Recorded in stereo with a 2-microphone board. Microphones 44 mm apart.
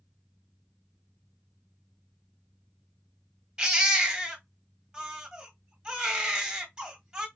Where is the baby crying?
25° right (ahead or behind), 1.6 m.